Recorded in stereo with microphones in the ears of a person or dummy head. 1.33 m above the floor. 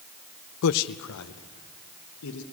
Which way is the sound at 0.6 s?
75° left (ahead or behind).